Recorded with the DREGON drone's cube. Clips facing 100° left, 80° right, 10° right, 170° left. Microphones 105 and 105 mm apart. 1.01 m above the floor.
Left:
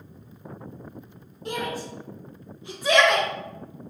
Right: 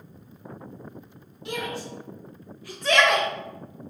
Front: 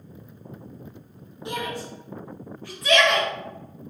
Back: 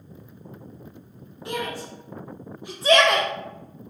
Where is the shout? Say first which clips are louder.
Left 2 dB, back 1 dB; 55° left, 2.0 m; by 3.3 s 155° right, 1.1 m.